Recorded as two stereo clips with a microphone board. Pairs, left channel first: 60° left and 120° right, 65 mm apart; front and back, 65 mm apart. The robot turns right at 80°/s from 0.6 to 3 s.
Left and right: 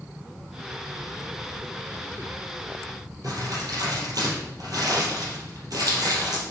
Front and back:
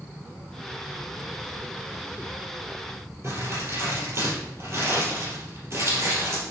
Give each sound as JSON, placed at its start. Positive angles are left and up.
{"t": 3.2, "sound": "crumpling", "azimuth_deg": -135, "distance_m": 3.5}